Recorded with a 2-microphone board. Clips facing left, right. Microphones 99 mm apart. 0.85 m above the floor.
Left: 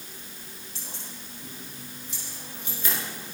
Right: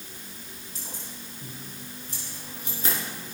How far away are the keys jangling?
About 5 m.